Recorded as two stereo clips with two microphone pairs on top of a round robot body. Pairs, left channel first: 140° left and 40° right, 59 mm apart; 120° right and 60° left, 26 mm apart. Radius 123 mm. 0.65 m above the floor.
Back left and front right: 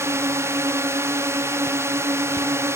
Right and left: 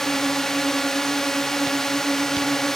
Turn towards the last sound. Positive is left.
turn(degrees=-50)